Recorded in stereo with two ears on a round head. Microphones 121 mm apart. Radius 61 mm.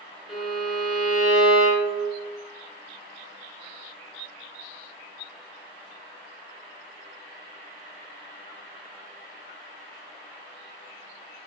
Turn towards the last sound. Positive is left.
turn(degrees=-5)  # may be behind; listen again after turning